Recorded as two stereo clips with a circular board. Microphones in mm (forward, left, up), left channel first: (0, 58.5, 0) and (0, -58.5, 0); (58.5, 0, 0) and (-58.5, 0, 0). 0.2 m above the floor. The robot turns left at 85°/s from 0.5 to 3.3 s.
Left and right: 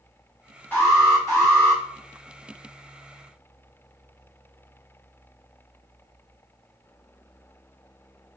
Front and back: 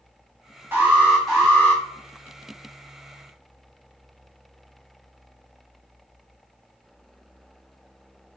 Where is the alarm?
135° left, 1.3 m; by 1.8 s 40° left, 1.3 m.